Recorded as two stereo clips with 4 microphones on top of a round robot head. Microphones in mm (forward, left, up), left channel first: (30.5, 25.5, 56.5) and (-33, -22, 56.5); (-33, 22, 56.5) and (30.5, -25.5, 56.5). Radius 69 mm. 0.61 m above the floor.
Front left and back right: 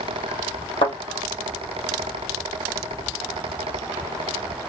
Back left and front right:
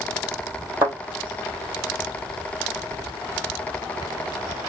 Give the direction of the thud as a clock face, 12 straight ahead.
11 o'clock.